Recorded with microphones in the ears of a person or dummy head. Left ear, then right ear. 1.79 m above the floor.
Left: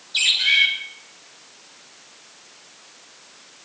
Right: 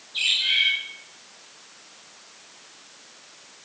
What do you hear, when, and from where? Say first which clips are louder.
0.1 s a bird: left 4 dB; 60° left (ahead or behind), 2.5 m